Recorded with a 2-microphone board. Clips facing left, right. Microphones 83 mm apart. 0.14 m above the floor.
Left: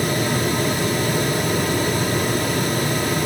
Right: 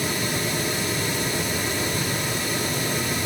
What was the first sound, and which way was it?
Only background noise.